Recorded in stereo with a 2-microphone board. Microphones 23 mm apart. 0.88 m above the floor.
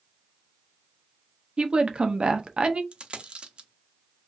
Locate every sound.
1.6 s a woman speaking: 40° right (ahead or behind), 0.6 m
2.9 s a dropped coin: 50° right (ahead or behind), 0.6 m